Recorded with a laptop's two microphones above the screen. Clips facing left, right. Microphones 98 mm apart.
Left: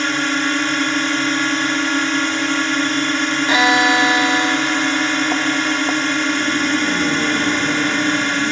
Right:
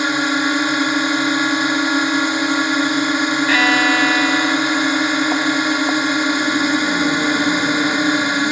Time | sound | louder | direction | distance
0.0 | a drone | right 2 dB | 15° right (ahead or behind) | ?
3.5 | a violin | left 3 dB | 20° left (ahead or behind) | ?